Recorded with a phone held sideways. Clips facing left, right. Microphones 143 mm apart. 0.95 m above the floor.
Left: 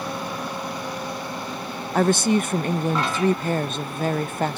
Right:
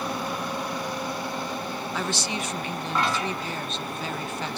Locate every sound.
1.9 s a woman speaking: 50° left (ahead or behind)